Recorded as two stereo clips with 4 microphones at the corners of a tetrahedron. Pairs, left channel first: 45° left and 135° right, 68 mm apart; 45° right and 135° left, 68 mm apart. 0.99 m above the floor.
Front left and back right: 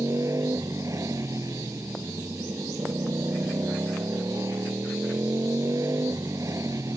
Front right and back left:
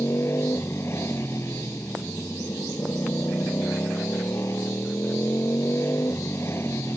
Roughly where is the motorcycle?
Right.